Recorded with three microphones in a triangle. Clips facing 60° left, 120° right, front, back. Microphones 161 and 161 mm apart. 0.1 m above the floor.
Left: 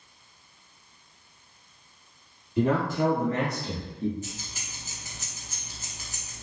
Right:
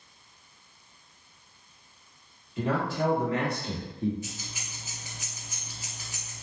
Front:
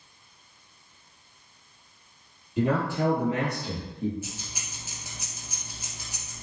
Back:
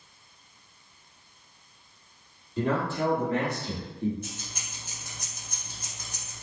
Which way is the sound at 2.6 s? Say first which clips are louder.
Left 4 dB, front 2 dB; 75° left.